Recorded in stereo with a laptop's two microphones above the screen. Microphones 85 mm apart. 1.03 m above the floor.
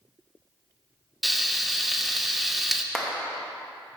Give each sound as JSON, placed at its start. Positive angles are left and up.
{"t": 1.2, "sound": "frying", "side_deg": 0, "distance_m": 0.6}
{"t": 2.9, "sound": "a clap", "side_deg": 0, "distance_m": 0.8}